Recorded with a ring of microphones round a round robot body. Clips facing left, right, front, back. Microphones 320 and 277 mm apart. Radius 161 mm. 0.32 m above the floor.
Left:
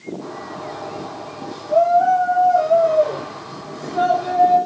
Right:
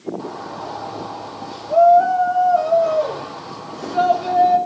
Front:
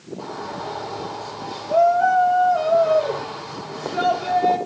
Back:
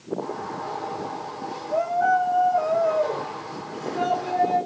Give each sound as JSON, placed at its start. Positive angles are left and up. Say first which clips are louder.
{"t": 0.2, "sound": "a shout", "louder": "right 1 dB, even", "azimuth_deg": -30, "distance_m": 8.5}